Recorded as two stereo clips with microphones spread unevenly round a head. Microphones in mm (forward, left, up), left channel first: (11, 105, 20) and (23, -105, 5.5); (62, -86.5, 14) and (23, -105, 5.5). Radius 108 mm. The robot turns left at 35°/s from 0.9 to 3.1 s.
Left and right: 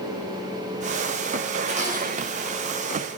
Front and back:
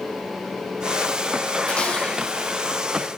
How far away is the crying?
No crying in this recording.